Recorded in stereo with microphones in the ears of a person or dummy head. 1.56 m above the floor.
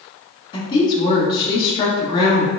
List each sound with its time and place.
0.5 s a woman speaking: 30° left (ahead or behind), 0.8 m